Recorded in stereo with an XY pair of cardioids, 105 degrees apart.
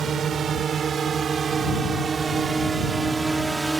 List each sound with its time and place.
0.0 s a drone: 50° right; by 3.8 s 15° right